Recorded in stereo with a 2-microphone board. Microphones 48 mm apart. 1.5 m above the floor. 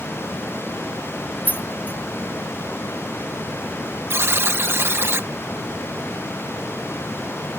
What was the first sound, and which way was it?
Keys jangling, 40° left (ahead or behind).